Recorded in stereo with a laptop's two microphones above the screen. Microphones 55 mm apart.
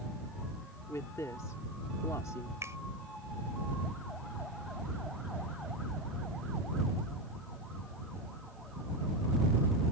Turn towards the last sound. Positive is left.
turn(degrees=-60)  # may be behind; listen again after turning